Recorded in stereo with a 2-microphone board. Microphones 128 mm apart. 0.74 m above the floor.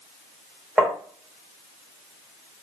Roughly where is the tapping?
Centre.